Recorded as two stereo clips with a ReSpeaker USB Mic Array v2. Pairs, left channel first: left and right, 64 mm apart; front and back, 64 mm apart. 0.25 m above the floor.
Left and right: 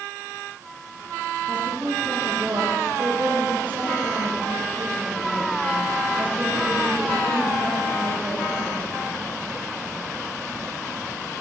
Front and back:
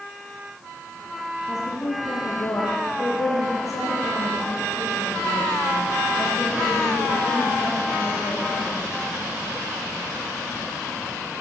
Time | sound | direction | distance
1.5 | a woman speaking | 30° right | 7.5 m